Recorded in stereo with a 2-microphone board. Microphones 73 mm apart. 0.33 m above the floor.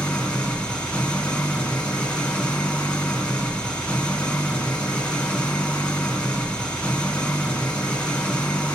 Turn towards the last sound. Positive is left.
turn(degrees=15)  # may be behind; listen again after turning